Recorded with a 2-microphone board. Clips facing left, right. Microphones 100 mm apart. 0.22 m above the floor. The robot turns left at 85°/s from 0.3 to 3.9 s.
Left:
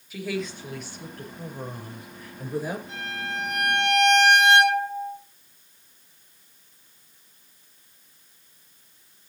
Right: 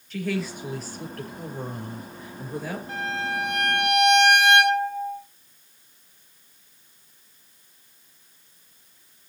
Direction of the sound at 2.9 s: 125° right.